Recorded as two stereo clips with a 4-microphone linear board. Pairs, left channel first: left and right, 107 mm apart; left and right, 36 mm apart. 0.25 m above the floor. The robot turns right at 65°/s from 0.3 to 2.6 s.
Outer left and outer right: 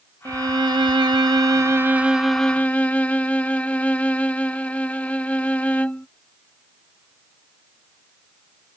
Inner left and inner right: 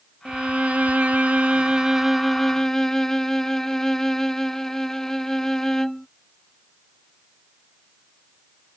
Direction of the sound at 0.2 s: 130° right.